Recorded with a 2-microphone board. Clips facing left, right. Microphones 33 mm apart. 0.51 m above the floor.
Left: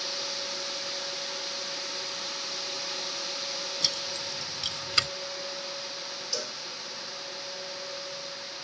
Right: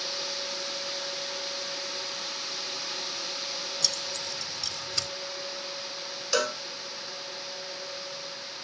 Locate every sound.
3.8 s keys jangling: 30° left (ahead or behind); by 5.1 s 50° left (ahead or behind)
6.3 s a cowbell: 80° right